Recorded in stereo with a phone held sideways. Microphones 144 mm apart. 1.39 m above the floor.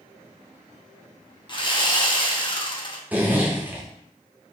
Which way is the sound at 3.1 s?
10° right (ahead or behind).